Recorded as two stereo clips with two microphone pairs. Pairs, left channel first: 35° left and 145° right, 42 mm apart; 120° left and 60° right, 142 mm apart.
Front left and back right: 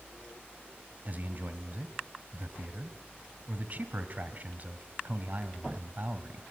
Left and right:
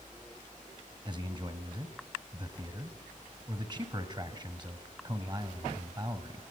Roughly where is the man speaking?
Right.